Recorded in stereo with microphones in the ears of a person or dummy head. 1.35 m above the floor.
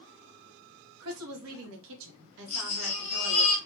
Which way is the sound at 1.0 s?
85° right.